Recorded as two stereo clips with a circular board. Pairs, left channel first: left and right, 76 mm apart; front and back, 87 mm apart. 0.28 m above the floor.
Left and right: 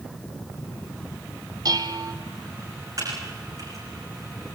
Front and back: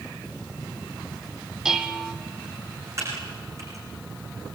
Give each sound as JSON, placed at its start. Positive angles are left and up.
{"t": 1.6, "sound": "dishes clattering", "azimuth_deg": -100, "distance_m": 1.4}
{"t": 3.0, "sound": "typing on a keyboard", "azimuth_deg": -130, "distance_m": 8.0}